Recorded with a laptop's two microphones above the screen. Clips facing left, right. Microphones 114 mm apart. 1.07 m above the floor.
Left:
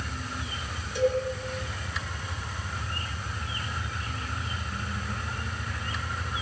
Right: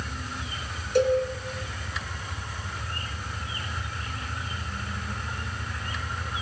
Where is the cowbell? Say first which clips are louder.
Right 4 dB; 75° right (ahead or behind), 4 m.